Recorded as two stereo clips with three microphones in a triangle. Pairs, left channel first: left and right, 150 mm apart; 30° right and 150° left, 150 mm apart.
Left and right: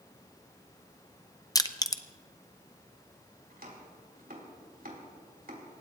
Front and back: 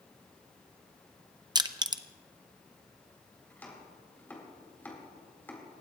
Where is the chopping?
110° right, 4 m.